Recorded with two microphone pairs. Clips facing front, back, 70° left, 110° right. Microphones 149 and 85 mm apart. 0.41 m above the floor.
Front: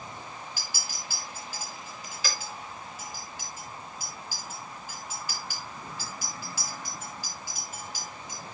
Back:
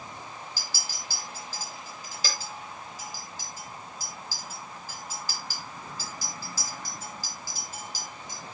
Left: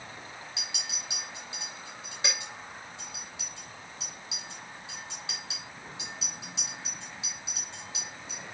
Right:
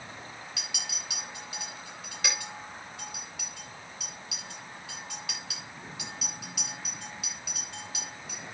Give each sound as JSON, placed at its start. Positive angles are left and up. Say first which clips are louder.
{"t": 0.6, "sound": "a clink", "louder": "even, even", "azimuth_deg": 130, "distance_m": 7.0}